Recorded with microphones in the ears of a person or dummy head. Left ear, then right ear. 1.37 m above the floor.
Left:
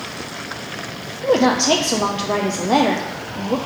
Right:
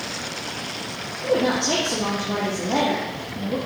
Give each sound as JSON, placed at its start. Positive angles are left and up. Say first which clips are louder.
{"t": 1.2, "sound": "a woman speaking", "louder": "left 5 dB", "side_deg": 60, "distance_m": 0.6}